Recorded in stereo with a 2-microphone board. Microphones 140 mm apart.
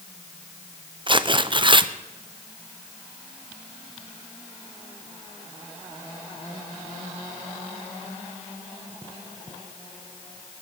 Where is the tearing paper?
35° right (ahead or behind), 0.6 m.